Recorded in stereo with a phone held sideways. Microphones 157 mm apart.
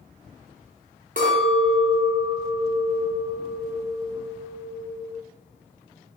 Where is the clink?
60° right (ahead or behind), 0.7 m.